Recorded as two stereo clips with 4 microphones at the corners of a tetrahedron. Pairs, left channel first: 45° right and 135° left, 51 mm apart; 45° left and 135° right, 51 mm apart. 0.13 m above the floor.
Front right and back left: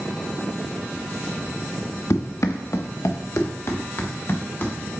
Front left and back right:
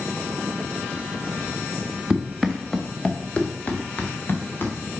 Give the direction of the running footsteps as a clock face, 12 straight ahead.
2 o'clock.